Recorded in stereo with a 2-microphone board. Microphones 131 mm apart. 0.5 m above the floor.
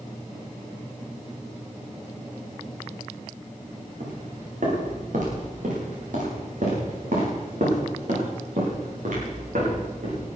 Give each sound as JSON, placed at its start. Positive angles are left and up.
{"t": 4.0, "sound": "footsteps", "side_deg": -65, "distance_m": 7.5}